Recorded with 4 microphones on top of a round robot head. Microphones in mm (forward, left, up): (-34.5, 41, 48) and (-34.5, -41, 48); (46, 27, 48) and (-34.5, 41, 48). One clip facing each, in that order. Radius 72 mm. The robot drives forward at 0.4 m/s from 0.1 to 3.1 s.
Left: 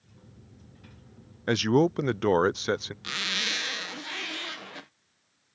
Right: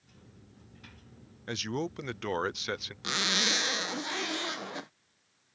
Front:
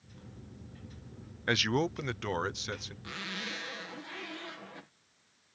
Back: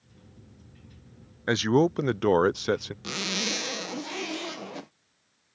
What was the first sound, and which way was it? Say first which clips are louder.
A man speaking: left 12 dB, back 8 dB; 105° left.